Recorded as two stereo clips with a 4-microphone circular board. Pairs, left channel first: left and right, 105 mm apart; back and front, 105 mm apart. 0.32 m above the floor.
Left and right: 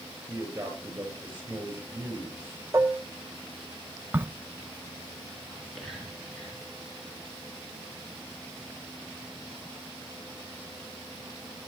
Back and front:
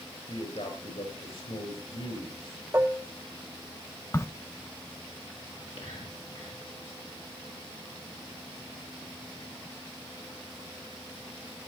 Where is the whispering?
Straight behind, 5.5 m.